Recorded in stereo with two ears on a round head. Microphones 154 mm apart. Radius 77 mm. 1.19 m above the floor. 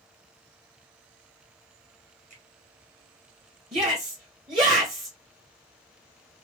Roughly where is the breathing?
I don't hear breathing.